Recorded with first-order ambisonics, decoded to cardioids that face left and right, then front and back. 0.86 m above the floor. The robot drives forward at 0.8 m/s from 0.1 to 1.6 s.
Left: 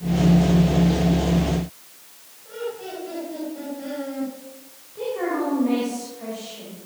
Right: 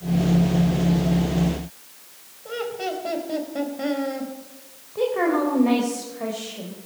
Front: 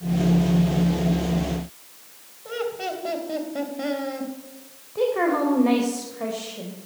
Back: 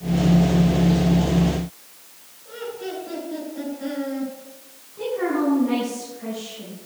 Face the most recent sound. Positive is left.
turn(degrees=-30)